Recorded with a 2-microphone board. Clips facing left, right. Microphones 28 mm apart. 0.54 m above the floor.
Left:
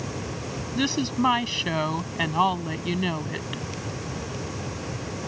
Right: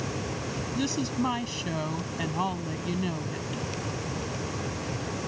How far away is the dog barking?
I don't hear a dog barking.